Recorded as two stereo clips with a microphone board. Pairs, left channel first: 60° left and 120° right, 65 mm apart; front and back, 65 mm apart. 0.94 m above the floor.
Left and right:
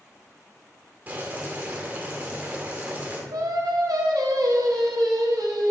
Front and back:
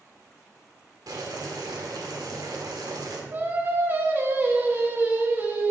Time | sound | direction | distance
1.1 | boiling | straight behind | 1.2 m
3.3 | singing | 125° right | 0.9 m